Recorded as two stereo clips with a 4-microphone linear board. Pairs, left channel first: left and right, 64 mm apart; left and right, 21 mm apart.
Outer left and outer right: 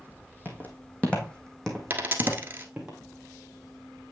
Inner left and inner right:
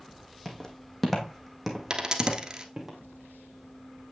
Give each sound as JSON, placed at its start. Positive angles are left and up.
{"t": 0.5, "sound": "footsteps", "side_deg": 30, "distance_m": 1.9}
{"t": 1.9, "sound": "a dropped coin", "side_deg": -30, "distance_m": 1.1}